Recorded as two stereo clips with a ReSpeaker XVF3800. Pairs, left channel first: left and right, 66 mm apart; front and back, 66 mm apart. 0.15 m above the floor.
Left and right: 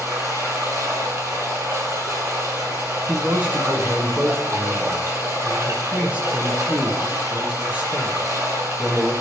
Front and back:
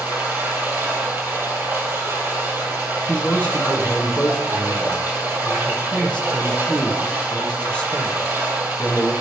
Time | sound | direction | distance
0.0 | running water | 130° right | 3 m
3.1 | a man speaking | 50° right | 1.4 m